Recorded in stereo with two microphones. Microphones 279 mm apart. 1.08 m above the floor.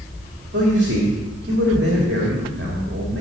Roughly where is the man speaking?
Right.